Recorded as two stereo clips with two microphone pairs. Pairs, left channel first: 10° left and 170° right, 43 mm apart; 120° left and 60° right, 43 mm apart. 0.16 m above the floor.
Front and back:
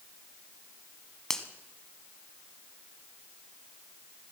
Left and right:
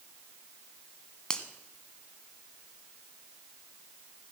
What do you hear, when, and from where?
1.3 s a finger snap: 70° left, 1.2 m